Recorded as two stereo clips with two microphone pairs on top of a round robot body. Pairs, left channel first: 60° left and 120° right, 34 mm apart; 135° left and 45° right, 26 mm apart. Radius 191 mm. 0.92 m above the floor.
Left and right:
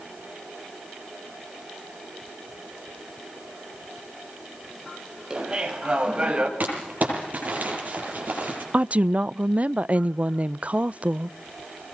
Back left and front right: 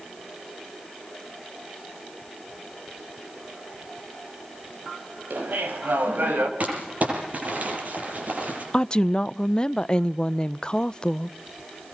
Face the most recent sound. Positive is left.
turn(degrees=-165)